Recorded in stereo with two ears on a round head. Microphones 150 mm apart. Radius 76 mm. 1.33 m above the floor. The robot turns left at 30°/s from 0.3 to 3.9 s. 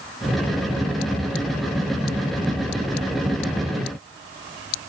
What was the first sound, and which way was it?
Only background noise.